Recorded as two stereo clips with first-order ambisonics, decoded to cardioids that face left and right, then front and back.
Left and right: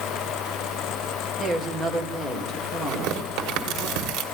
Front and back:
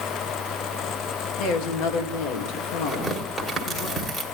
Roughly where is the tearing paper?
Right.